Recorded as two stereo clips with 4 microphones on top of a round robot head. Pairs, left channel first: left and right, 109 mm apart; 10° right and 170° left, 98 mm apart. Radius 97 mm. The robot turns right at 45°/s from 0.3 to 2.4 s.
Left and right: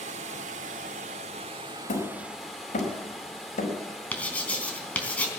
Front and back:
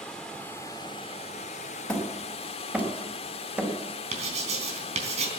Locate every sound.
0.0 s running water: 95° right, 1.2 m; by 5.4 s straight ahead, 1.2 m
1.9 s hammering: 70° left, 5 m; by 3.7 s 95° left, 5 m
4.1 s writing: 170° left, 3.5 m